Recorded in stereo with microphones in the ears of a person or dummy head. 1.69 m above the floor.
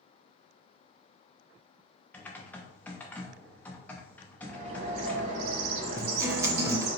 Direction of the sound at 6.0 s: 15° right (ahead or behind).